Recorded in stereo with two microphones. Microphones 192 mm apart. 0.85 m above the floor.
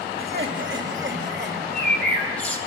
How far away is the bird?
About 4.5 m.